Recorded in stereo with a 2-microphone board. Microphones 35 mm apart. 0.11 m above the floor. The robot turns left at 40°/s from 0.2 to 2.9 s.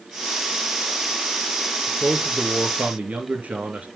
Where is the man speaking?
50° right, 1.9 m; by 3.9 s 90° right, 1.9 m.